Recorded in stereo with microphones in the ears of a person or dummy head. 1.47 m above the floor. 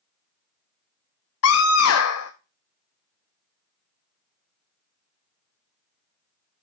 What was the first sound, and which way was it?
A scream, 75° left (ahead or behind).